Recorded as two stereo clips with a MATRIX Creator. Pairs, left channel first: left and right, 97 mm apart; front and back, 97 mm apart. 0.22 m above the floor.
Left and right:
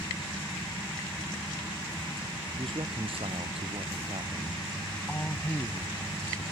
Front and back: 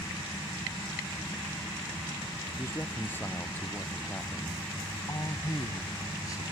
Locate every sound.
2.6 s a man speaking: 65° right; by 4.6 s 70° right
5.1 s a man speaking: 20° left